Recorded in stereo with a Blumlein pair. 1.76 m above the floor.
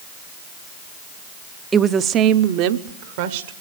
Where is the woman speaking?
15° right, 0.7 m; by 3.5 s 55° right, 1.6 m.